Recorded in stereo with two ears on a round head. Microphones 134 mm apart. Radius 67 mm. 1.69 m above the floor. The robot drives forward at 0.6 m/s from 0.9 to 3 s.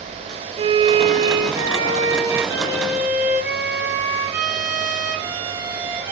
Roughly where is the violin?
Right.